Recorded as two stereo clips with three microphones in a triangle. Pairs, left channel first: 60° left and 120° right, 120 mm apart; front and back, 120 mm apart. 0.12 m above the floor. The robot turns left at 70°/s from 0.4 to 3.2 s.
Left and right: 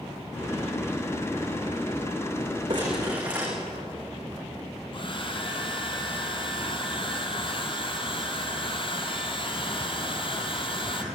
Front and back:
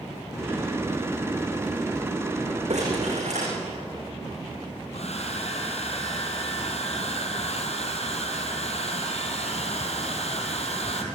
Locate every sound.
2.7 s crumpling: 165° right, 9.5 m; by 3.5 s 160° left, 9.5 m
4.9 s a hair dryer: 20° left, 2.5 m